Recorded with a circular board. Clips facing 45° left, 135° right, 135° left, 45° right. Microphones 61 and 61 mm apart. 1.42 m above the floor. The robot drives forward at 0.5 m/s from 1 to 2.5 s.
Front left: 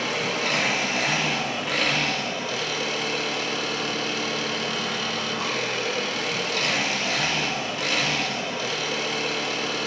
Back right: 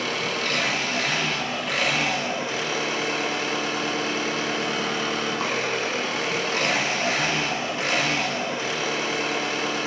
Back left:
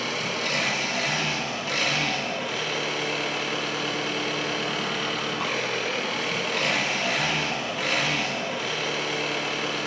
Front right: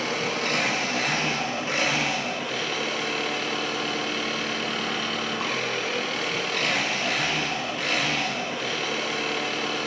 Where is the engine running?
20° right, 0.8 m; by 9.9 s 140° right, 0.6 m.